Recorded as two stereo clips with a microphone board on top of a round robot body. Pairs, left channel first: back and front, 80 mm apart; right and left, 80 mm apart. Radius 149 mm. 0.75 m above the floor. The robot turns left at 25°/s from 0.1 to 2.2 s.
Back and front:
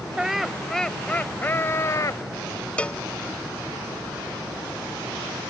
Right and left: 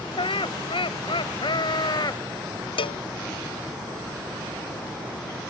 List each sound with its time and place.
0.2 s laughter: 80° right; by 2.2 s 130° right
2.8 s a cowbell: 105° right